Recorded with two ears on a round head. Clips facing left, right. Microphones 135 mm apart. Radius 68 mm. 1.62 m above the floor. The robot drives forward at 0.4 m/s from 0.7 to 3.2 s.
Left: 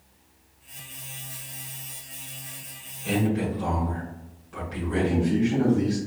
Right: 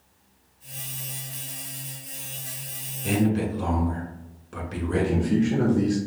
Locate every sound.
3.0 s a man speaking: 55° right (ahead or behind), 1.7 m
4.9 s a man speaking: 60° right (ahead or behind), 1.4 m